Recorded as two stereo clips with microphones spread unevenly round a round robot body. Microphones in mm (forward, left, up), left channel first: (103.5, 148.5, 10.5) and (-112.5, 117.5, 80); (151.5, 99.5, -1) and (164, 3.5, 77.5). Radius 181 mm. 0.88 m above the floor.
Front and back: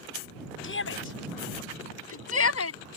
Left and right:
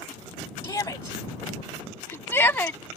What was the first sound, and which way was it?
A shout, 40° left.